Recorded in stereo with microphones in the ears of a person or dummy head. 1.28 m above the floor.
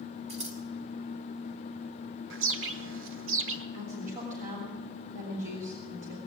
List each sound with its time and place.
0.3 s scissors: 30° right (ahead or behind), 2 m
2.3 s a bird: 65° right (ahead or behind), 1.0 m
3.7 s a woman speaking: 50° right (ahead or behind), 3 m